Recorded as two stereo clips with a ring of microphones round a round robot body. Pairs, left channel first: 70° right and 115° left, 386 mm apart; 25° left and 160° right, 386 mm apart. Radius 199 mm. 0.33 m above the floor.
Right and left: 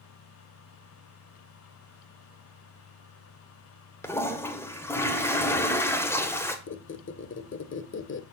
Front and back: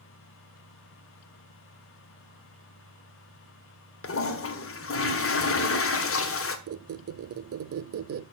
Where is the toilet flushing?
10° left, 1.7 m.